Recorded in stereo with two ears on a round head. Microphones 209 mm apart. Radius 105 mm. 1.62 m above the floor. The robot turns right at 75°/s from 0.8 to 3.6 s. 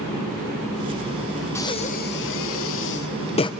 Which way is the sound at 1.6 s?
10° left (ahead or behind).